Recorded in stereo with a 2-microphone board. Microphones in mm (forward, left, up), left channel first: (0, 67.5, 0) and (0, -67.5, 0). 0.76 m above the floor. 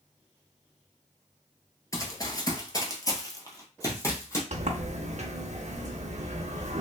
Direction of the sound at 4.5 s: 60° right (ahead or behind).